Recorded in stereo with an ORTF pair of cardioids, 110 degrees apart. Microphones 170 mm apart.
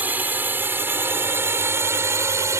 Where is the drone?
10° right; by 2.6 s 15° right.